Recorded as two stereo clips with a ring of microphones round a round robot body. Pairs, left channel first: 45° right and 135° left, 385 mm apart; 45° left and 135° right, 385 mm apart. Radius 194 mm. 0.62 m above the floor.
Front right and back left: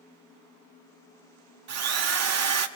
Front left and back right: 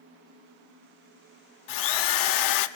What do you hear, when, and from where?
1.7 s a drill: 85° left, 1.2 m